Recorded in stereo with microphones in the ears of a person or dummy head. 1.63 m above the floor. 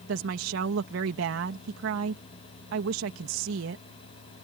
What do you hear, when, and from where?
0.1 s a woman speaking: 75° right (ahead or behind)